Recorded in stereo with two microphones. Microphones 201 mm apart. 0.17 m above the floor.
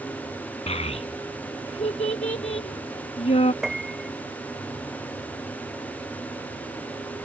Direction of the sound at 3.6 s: Centre (ahead or behind).